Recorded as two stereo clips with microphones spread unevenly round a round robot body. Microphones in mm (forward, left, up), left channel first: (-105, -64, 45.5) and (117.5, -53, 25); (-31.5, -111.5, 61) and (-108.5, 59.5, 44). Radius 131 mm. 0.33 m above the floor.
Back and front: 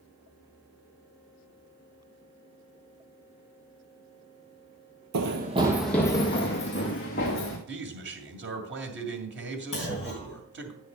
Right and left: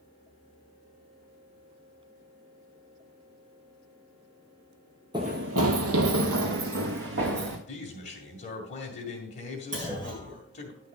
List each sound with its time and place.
5.1 s running footsteps: 35° left, 0.6 m; by 7.6 s 125° left, 2.5 m
7.7 s a man speaking: 10° right, 2 m
9.7 s a clunk: 90° left, 4 m